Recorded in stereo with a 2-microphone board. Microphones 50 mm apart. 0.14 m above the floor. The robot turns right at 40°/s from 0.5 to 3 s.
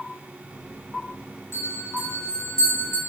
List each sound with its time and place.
1.5 s a bell: 65° left (ahead or behind), 2.5 m; by 3.0 s 10° left (ahead or behind), 2.5 m